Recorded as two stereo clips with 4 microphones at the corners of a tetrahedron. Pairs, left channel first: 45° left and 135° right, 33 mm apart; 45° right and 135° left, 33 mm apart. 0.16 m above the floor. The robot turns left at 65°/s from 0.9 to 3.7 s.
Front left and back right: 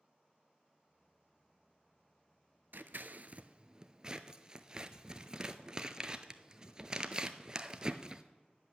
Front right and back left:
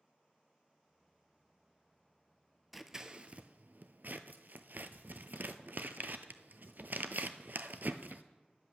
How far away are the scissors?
About 0.6 m.